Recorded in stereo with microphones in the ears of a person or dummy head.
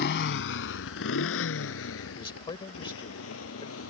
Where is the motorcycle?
65° left (ahead or behind); by 3.9 s 80° left.